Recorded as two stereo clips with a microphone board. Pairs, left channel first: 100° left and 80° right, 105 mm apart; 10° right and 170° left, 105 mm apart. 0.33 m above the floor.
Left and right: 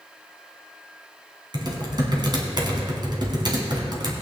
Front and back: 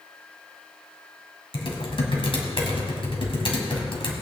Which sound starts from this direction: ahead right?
Typing on a keyboard, at 1.5 s.